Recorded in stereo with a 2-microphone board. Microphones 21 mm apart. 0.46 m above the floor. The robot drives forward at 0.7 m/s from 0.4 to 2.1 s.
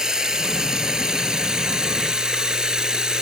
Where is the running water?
30° right (ahead or behind); by 3.2 s 35° right (ahead or behind).